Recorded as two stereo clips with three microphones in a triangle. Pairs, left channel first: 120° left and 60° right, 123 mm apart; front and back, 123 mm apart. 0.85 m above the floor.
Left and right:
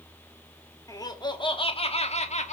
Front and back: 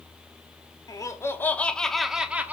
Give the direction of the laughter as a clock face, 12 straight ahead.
10 o'clock.